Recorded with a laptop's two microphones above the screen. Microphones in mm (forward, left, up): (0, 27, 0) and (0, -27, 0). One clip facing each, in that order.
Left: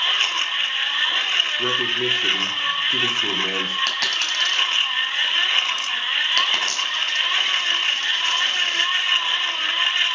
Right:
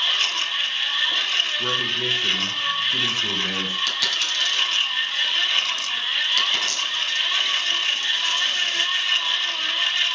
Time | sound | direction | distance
0.0 | a machine running | 30° left (ahead or behind) | 1.1 m
1.6 | a man speaking | 75° left (ahead or behind) | 2.5 m
3.9 | a dropped coin | 50° left (ahead or behind) | 1.8 m